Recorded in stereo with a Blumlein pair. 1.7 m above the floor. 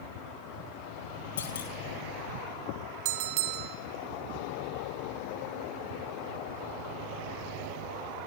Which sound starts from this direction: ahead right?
A bell, at 3.0 s.